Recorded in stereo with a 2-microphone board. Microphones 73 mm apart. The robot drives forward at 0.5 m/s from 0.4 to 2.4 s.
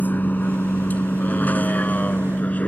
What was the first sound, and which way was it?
A vehicle, 25° left (ahead or behind).